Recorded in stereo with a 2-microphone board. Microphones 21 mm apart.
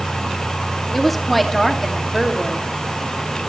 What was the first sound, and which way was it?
A woman speaking, 10° left (ahead or behind).